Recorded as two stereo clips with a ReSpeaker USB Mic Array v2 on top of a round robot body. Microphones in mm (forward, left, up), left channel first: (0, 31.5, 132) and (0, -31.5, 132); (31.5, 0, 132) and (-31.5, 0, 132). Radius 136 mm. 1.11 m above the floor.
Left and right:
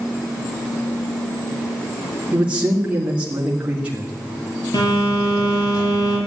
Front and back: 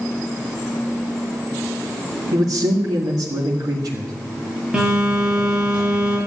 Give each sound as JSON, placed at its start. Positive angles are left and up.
{"t": 2.3, "sound": "a man speaking", "azimuth_deg": -165, "distance_m": 2.5}
{"t": 4.7, "sound": "a phone buzzing", "azimuth_deg": 105, "distance_m": 6.0}